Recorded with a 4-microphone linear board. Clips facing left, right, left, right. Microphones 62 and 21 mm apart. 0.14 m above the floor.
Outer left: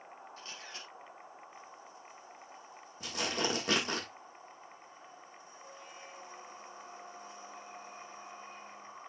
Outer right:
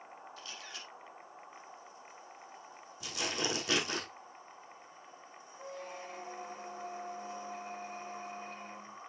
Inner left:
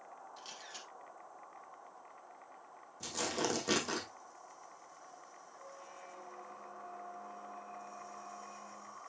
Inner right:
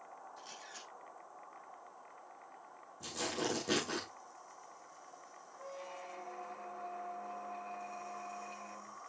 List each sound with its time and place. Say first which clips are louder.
0.4 s a camera shutter: even, inner left 3 dB; 30° left (ahead or behind), 4 m
3.0 s tearing paper: outer left 2 dB, inner left 2 dB; 35° left (ahead or behind), 4.5 m
5.6 s a squeak: outer right 8 dB, inner right 6 dB; 65° right (ahead or behind), 1.2 m